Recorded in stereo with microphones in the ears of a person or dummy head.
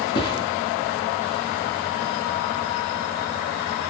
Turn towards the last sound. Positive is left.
turn(degrees=25)  # may be behind; listen again after turning